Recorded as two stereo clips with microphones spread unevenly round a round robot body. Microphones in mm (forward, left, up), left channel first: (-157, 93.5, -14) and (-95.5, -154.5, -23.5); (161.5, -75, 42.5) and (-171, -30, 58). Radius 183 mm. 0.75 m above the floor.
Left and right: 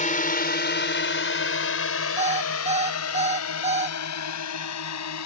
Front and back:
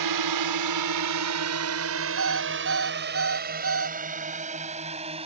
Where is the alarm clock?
140° right.